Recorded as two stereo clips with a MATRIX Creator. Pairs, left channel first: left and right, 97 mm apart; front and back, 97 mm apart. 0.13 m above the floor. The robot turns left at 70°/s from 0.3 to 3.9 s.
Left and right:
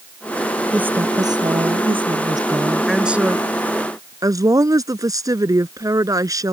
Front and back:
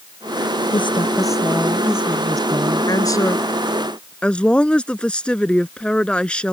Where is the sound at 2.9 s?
Straight ahead; by 6.5 s 75° right.